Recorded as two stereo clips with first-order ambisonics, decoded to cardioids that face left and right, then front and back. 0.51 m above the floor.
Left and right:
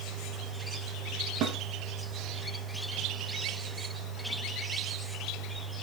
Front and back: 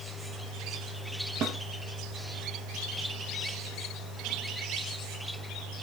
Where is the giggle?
I don't hear a giggle.